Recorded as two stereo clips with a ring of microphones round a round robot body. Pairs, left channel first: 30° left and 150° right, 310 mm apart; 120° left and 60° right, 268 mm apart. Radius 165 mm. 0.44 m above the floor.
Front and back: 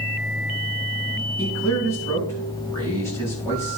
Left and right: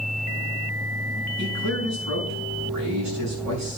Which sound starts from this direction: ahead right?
A man speaking, at 1.4 s.